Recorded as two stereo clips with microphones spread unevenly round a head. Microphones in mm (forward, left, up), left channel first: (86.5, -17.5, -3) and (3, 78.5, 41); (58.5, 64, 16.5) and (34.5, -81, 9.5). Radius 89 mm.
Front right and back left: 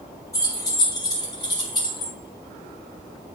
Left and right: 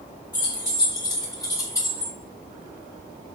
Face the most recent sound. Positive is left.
turn(degrees=10)